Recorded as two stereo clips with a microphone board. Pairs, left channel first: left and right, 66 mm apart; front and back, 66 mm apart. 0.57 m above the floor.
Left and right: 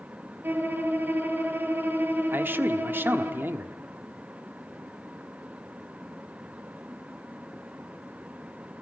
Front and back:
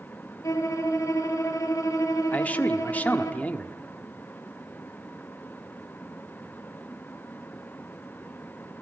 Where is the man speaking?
55° right, 1.5 m.